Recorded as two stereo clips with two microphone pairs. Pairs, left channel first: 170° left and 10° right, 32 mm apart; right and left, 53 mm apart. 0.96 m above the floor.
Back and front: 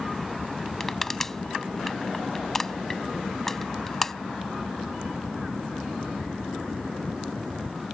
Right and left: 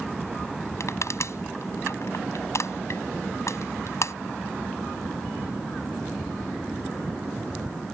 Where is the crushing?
115° right.